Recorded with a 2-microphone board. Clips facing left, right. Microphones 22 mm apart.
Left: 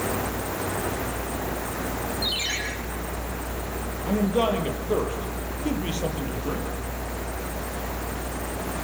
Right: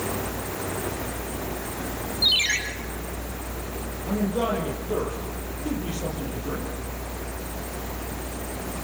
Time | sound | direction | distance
2.2 | a ringtone | 35° right (ahead or behind) | 4.5 m
4.1 | a man speaking | 50° left (ahead or behind) | 5.5 m